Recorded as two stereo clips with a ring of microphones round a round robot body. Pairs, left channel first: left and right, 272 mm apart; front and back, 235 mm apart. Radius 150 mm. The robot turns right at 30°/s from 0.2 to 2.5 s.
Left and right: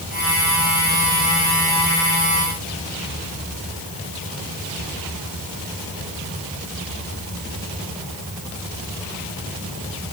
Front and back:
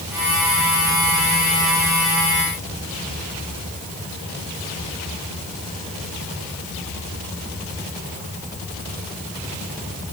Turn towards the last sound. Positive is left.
No sound to turn to.